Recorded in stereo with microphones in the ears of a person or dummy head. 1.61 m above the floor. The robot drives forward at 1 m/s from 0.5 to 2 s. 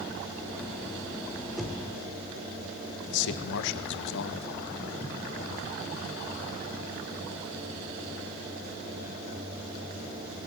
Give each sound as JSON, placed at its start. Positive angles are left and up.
{"t": 1.6, "sound": "knocking", "side_deg": 0, "distance_m": 3.5}
{"t": 3.1, "sound": "a man speaking", "side_deg": 65, "distance_m": 1.6}